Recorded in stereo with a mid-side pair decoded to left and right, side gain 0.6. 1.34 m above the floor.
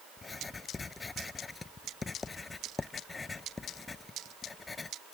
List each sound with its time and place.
0.2 s writing: 25° left